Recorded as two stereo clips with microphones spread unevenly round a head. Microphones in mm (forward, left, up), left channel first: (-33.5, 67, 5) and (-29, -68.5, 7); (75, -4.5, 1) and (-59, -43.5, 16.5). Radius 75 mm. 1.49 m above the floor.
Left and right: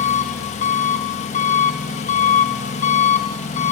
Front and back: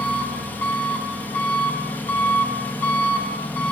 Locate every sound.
0.0 s an engine running: 100° left, 1.0 m